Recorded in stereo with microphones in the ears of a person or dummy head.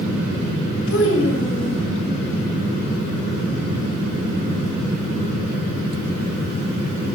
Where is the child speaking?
85° left, 1.9 m.